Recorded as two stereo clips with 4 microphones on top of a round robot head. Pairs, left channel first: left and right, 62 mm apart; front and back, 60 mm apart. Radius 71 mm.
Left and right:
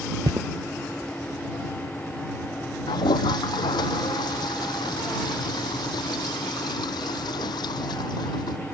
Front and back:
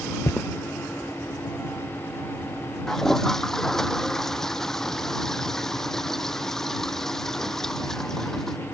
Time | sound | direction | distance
0.2 | footsteps | 70° right | ?
2.9 | a toilet flushing | 80° left | ?